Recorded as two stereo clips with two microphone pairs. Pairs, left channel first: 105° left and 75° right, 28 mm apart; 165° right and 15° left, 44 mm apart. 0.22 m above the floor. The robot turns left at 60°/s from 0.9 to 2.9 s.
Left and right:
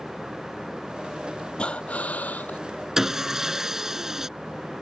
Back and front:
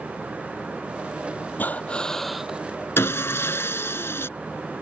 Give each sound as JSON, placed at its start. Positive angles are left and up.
{"t": 1.6, "sound": "breathing", "azimuth_deg": 150}
{"t": 3.0, "sound": "sawing", "azimuth_deg": -150}